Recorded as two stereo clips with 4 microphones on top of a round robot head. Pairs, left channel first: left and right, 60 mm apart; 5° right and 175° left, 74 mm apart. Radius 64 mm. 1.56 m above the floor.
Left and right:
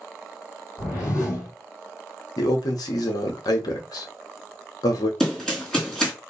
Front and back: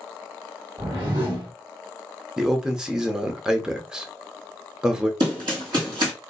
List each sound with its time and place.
0.8 s a whoosh: 125° left, 2.5 m
2.4 s a man speaking: 95° left, 0.9 m
5.2 s running footsteps: 170° left, 2 m